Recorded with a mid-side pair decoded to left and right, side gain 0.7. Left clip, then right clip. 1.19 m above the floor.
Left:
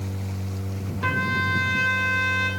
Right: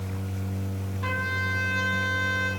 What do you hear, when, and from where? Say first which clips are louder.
1.0 s a trumpet: left 5 dB; 30° left, 2.5 m